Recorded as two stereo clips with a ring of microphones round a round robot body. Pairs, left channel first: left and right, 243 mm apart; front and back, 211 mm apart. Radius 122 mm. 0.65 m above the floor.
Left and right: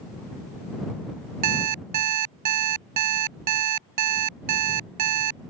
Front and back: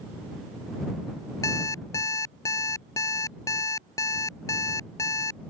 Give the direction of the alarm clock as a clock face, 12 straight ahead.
3 o'clock.